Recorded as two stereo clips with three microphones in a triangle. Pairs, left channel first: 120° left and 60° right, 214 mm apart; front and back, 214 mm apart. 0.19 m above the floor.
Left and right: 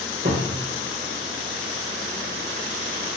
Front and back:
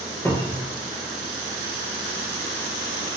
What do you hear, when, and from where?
0.2 s a cupboard door: 80° right, 2.5 m